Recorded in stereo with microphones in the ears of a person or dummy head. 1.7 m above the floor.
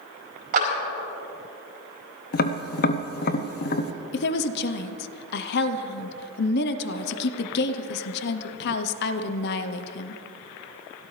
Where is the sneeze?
No sneeze in this recording.